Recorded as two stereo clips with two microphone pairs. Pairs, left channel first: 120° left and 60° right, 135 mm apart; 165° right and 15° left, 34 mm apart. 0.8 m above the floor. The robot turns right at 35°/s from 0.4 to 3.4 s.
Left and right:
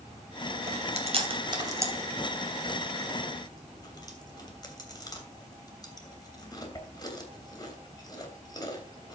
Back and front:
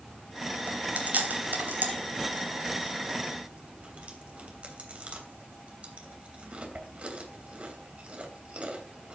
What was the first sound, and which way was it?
Chewing, 35° right.